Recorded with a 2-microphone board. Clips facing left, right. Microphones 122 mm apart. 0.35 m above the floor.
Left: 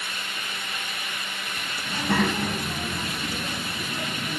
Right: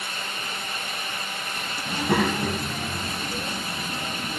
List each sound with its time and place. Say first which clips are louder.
1.9 s a child speaking: right 1 dB; 20° right (ahead or behind), 2 m; by 4.4 s 40° left (ahead or behind), 4 m